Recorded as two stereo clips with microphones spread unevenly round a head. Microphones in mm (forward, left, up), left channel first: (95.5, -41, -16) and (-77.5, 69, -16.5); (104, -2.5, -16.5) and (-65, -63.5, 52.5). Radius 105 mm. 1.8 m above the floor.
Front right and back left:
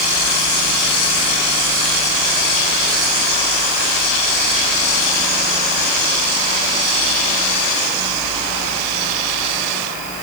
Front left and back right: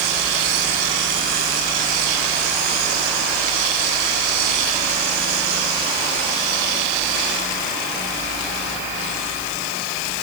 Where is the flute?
I don't hear a flute.